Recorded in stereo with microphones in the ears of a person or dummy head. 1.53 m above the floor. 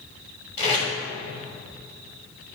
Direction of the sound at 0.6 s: 40° left (ahead or behind).